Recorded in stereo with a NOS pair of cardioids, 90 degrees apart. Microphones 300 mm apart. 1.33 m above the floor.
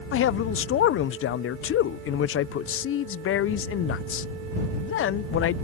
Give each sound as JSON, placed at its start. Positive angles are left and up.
{"t": 0.1, "sound": "a man speaking", "azimuth_deg": 45}